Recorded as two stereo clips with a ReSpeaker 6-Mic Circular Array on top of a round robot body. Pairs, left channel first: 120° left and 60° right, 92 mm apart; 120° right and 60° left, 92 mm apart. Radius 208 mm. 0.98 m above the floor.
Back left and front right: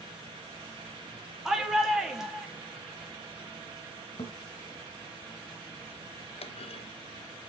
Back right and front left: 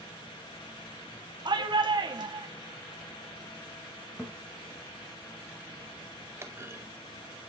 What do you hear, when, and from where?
1.4 s a shout: 25° left, 3 m
4.2 s a thud: 155° left, 1.0 m
6.4 s a clunk: 120° left, 0.5 m